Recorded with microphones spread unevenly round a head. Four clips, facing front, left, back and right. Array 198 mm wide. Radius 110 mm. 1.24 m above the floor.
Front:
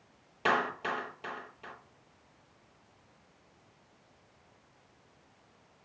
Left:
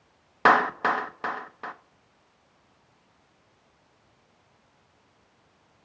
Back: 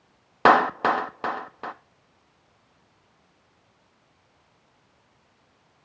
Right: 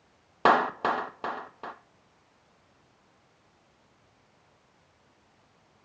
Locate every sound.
0.5 s a clap: 165° right, 0.8 m